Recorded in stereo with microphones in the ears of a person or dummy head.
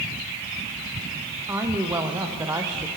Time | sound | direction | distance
1.5 | a woman speaking | 15° right (ahead or behind) | 0.6 m